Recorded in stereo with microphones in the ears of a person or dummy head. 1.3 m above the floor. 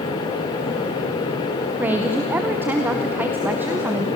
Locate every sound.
1.8 s a woman speaking: 10° right (ahead or behind), 0.8 m